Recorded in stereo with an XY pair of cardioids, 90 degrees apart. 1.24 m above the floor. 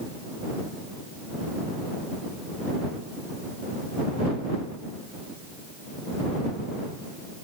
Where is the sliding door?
I don't hear a sliding door.